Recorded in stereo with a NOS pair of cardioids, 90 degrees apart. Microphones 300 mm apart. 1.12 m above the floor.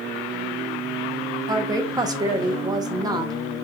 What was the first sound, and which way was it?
A woman speaking, 15° right.